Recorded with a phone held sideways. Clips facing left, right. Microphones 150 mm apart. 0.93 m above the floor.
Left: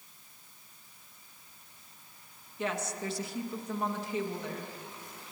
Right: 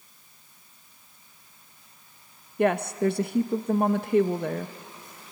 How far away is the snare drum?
I don't hear a snare drum.